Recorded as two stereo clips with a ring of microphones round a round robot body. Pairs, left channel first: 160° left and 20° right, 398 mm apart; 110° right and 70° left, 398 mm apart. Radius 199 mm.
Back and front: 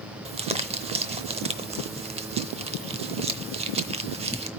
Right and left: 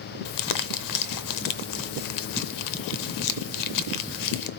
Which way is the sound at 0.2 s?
95° right.